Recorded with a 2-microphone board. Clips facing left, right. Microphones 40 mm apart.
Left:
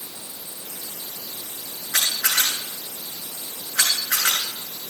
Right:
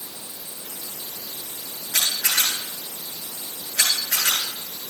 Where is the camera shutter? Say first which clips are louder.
Left 1 dB; 75° left (ahead or behind), 8 m.